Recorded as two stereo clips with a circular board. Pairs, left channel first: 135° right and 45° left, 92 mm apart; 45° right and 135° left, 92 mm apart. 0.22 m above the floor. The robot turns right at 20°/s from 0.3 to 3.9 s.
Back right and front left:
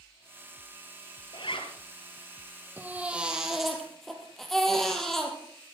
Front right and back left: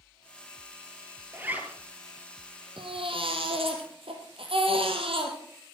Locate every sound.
1.3 s a zipper: 155° right, 1.7 m; by 1.7 s 150° right, 1.7 m
2.8 s a baby crying: 115° left, 2.5 m; by 5.4 s 140° left, 2.5 m